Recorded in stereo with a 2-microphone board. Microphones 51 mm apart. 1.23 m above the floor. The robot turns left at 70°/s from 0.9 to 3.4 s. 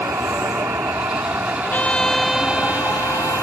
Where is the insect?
95° right; by 3.4 s 90° left.